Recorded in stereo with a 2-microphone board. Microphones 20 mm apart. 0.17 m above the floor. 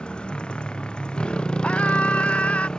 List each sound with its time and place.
0.0 s a motorcycle: 55° left (ahead or behind); by 2.8 s 45° left (ahead or behind)
1.6 s a scream: 75° left (ahead or behind)